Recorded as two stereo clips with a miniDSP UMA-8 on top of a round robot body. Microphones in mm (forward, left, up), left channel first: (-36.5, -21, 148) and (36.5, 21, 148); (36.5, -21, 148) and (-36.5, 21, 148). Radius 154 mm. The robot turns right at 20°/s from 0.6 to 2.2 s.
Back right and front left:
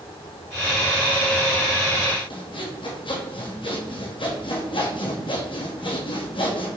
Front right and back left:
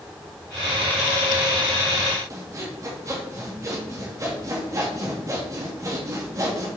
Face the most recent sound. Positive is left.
turn(degrees=-160)